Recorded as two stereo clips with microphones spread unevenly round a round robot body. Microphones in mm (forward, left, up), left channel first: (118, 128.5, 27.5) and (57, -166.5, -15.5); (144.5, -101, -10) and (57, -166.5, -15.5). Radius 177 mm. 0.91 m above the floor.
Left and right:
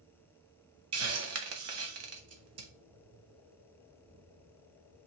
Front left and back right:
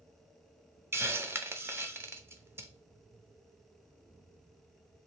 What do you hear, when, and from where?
0.9 s a hiss: 75° right, 0.9 m